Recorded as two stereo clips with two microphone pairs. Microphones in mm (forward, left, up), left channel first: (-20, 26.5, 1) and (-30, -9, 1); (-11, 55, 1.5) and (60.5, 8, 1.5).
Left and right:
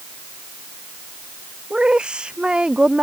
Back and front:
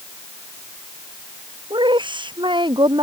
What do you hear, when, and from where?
1.7 s a woman speaking: 40° right